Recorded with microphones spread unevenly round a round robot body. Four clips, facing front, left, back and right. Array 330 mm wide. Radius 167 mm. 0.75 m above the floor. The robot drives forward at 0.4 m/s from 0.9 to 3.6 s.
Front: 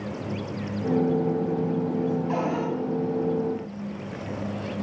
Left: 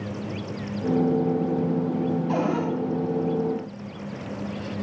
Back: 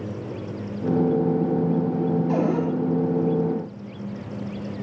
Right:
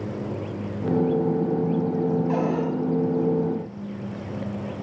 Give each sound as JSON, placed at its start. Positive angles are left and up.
{"t": 2.3, "sound": "a cupboard door", "azimuth_deg": 165, "distance_m": 5.0}